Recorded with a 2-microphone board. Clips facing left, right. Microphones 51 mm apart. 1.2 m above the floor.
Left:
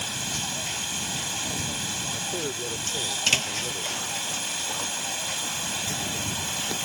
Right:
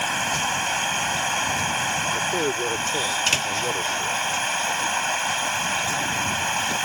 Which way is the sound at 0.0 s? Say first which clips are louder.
Right 9 dB; 50° right (ahead or behind).